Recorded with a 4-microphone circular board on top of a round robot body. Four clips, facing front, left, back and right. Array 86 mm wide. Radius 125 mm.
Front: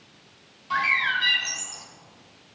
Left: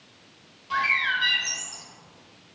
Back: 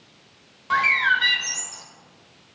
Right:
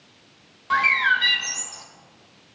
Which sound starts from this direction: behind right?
A bird, at 0.7 s.